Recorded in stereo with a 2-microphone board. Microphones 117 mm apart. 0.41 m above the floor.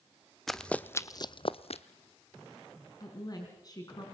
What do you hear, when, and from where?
0.5 s running footsteps: centre (ahead or behind), 1.0 m; by 1.8 s 65° left (ahead or behind), 0.9 m
3.0 s a woman speaking: 35° left (ahead or behind), 3.5 m